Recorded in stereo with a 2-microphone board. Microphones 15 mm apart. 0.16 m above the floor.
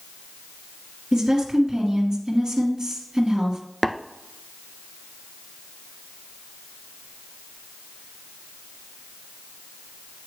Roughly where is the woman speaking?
Right.